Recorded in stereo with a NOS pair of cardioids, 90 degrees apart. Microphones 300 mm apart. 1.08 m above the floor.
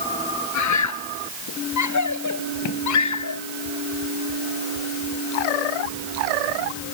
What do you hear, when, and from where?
0.5 s a scream: 70° left